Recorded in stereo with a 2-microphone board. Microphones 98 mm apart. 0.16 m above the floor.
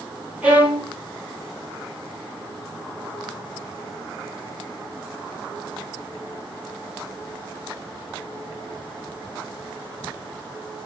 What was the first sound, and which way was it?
A violin, 15° right (ahead or behind).